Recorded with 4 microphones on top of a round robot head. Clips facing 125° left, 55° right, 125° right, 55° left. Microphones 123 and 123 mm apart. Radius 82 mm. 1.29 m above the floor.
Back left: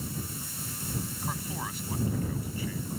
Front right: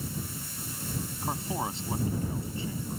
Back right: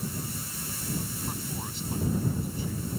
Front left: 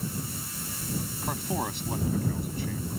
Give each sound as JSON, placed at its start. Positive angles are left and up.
{"t": 1.2, "sound": "a man speaking", "azimuth_deg": 15}